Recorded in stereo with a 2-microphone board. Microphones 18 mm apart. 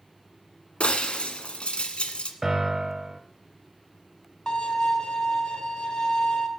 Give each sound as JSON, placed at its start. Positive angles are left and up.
{"t": 0.8, "sound": "breaking glass", "side_deg": 85, "distance_m": 1.4}
{"t": 2.4, "sound": "a piano", "side_deg": -15, "distance_m": 1.2}
{"t": 4.5, "sound": "a violin", "side_deg": 45, "distance_m": 1.7}